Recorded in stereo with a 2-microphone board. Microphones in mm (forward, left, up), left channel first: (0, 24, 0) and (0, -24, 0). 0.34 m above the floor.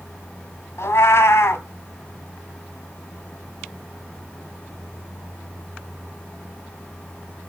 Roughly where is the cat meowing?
Left.